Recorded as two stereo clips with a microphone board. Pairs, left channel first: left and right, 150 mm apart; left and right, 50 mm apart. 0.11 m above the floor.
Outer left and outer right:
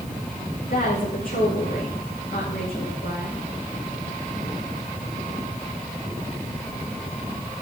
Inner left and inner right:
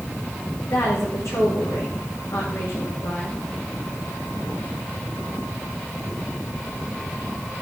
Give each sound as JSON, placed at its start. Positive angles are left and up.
{"t": 0.7, "sound": "a woman speaking", "side_deg": 70, "distance_m": 9.5}